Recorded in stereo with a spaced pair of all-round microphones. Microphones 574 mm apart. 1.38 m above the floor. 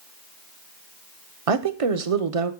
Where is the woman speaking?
70° right (ahead or behind), 0.8 m.